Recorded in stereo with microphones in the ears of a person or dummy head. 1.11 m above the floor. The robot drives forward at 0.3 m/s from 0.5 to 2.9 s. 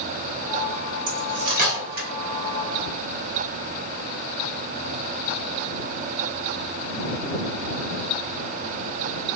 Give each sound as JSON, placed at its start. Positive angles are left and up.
{"t": 1.1, "sound": "cutlery clinking", "side_deg": -45, "distance_m": 1.6}